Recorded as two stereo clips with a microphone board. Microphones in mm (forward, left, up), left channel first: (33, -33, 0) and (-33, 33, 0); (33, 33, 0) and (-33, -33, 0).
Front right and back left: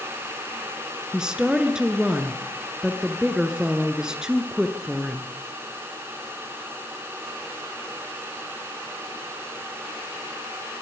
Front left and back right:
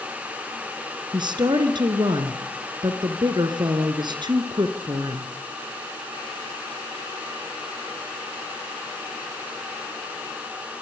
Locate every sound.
1.1 s a woman speaking: 145° right, 1.9 m